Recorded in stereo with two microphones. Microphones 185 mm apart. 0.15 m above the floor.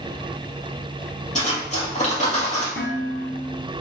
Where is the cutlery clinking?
40° left (ahead or behind), 2.5 m.